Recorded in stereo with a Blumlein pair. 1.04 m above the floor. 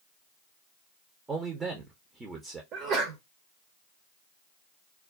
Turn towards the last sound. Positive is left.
turn(degrees=-35)